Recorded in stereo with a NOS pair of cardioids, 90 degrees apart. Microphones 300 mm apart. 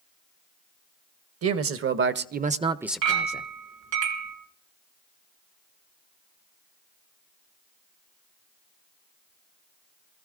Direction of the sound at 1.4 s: 50° right.